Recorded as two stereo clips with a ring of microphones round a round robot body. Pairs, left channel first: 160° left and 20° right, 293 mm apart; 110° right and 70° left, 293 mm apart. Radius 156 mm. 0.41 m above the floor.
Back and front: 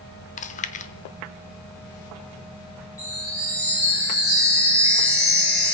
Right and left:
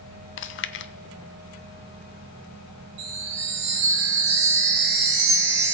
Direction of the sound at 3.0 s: 75° left.